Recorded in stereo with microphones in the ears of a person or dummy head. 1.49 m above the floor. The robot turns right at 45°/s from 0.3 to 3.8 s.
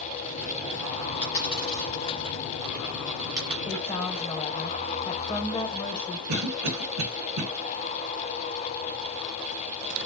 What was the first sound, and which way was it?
A dropped coin, 35° left (ahead or behind).